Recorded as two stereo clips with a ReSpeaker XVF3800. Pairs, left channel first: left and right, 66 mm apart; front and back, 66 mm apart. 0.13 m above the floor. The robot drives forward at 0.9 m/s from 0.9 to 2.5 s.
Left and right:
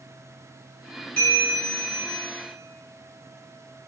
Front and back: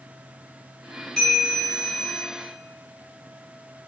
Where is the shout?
No shout in this recording.